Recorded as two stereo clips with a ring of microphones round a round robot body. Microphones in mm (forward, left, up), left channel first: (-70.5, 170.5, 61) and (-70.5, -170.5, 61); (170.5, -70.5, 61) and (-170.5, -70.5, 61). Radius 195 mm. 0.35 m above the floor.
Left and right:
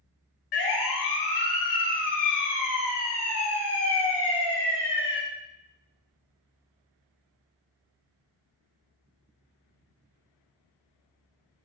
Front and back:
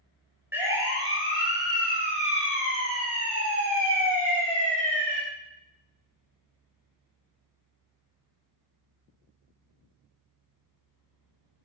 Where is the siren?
95° left, 7.5 m; by 5.2 s 145° left, 10 m.